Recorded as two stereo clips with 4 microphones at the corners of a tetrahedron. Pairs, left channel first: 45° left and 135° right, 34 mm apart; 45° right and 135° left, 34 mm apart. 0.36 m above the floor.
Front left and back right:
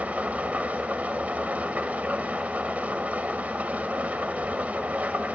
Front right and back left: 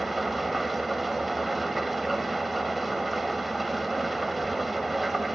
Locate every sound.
0.0 s an engine running: 140° right, 1.3 m